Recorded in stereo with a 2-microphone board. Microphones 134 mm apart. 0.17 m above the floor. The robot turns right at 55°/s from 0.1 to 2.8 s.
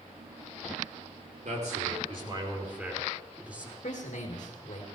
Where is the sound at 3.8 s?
65° left (ahead or behind), 3 m.